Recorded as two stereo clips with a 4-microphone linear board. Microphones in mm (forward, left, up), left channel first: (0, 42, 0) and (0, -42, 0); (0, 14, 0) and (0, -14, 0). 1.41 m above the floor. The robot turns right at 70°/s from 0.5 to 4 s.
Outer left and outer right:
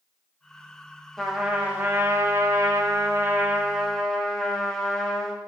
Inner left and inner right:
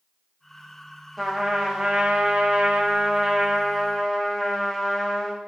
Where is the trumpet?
170° left, 0.7 m; by 5.4 s 10° left, 0.7 m.